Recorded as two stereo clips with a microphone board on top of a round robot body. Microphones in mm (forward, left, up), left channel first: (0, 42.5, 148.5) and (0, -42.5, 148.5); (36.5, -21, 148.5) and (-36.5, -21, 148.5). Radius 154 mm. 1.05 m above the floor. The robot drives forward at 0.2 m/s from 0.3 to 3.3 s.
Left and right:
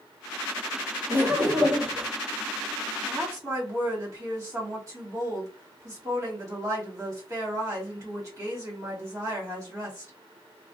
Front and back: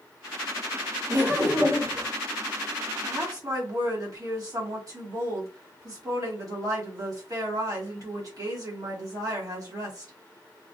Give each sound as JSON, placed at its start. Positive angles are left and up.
{"t": 1.1, "sound": "laughter", "azimuth_deg": -150, "distance_m": 1.7}
{"t": 3.0, "sound": "a woman speaking", "azimuth_deg": -140, "distance_m": 1.7}